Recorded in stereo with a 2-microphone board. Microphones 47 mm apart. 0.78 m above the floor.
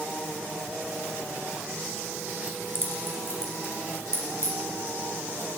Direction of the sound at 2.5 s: 35° left (ahead or behind).